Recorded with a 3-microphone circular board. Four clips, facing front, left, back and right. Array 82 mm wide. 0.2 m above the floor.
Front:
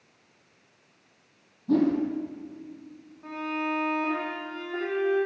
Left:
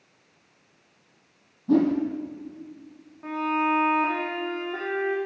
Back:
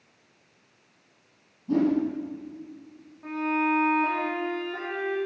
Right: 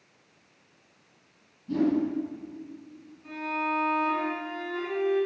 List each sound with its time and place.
1.7 s a whoosh: 70° left, 6 m
3.2 s a violin: 95° left, 7 m